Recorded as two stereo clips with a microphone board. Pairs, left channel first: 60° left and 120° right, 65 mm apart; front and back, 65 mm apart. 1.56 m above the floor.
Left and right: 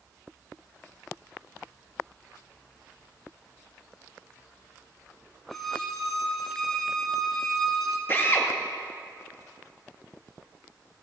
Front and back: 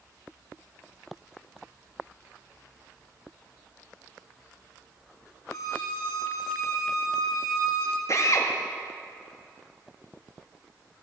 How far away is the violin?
About 1.7 m.